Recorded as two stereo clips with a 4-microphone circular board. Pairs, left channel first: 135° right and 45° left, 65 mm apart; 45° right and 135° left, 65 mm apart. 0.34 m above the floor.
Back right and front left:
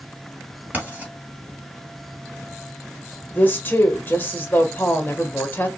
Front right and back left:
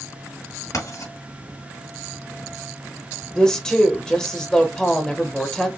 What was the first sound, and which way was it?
Writing, 20° right.